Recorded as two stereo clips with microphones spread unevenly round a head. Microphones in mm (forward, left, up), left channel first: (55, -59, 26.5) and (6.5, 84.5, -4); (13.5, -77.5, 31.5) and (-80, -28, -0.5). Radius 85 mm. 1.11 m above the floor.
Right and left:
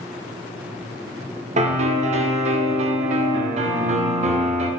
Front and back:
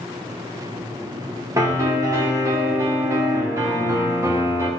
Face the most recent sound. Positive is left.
turn(degrees=110)